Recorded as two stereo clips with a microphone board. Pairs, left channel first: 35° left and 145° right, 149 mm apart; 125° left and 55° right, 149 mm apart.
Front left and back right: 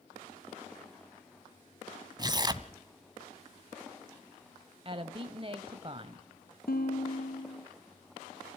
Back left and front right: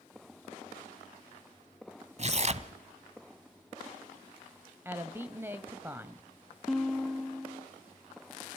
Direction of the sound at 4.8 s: 120° right.